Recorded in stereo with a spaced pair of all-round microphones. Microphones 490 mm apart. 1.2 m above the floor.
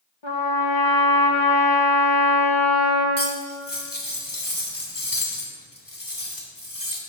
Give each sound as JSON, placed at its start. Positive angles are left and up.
{"t": 0.2, "sound": "a trumpet", "side_deg": 65, "distance_m": 1.1}
{"t": 3.2, "sound": "cutlery clinking", "side_deg": 40, "distance_m": 1.3}